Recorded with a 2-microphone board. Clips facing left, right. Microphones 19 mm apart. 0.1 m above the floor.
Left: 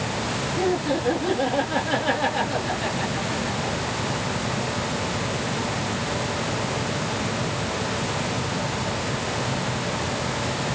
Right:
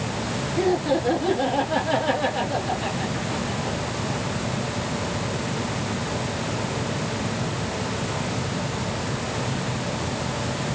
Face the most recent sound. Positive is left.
turn(degrees=40)  # may be behind; listen again after turning